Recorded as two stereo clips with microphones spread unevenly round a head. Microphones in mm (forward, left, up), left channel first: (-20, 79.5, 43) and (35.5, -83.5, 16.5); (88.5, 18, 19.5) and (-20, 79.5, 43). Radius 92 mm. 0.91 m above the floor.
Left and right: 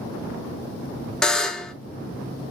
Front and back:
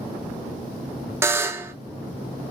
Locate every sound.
1.2 s a buzzer: 150° right, 0.6 m